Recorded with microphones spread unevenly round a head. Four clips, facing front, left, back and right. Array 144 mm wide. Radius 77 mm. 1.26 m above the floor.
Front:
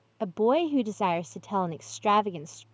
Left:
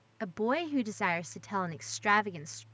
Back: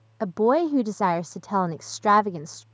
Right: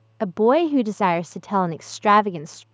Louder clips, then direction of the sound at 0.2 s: Right 14 dB, back 3 dB; 110° right.